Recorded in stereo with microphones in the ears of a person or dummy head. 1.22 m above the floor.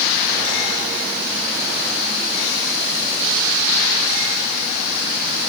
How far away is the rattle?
I don't hear a rattle.